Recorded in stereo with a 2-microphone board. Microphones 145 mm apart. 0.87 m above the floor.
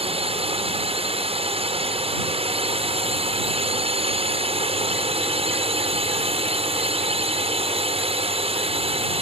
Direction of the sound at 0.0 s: 45° right (ahead or behind).